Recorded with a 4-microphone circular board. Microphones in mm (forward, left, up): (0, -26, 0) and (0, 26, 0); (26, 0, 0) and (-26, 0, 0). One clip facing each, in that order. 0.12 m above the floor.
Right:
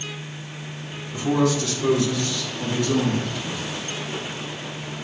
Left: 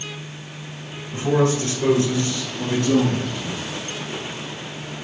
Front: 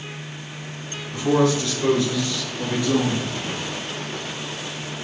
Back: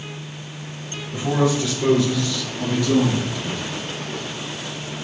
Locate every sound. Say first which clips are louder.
1.1 s a man speaking: left 2 dB, front 1 dB; 115° left, 2 m; by 3.6 s 60° left, 2.5 m